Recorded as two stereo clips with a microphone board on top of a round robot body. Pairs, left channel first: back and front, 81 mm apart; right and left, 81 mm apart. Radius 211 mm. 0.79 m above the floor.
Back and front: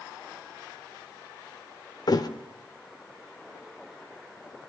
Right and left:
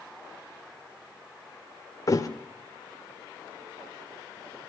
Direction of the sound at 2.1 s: 140° right.